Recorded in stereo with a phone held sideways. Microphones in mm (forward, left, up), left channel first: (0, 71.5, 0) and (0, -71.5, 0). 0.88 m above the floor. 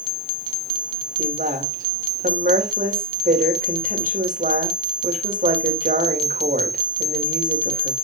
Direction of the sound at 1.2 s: 70° right (ahead or behind).